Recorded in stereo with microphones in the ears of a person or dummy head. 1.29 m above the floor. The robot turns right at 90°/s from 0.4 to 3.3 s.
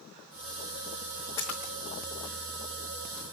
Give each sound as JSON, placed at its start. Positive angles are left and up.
{"t": 1.4, "sound": "a splash", "side_deg": 5, "distance_m": 1.4}